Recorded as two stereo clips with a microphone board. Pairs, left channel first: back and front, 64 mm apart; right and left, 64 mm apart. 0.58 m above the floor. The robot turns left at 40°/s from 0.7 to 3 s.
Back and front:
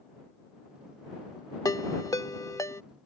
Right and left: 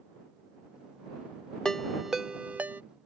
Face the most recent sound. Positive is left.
turn(degrees=135)